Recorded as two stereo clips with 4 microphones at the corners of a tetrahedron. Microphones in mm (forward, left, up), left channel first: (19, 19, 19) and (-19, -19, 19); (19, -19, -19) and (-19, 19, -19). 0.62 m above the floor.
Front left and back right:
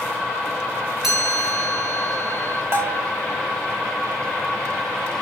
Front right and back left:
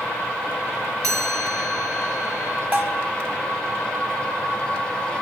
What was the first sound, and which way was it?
A chime, 140° left.